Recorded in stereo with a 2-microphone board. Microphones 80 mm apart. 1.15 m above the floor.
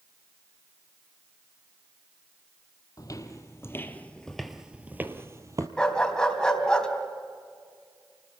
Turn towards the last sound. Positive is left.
turn(degrees=10)  # may be behind; listen again after turning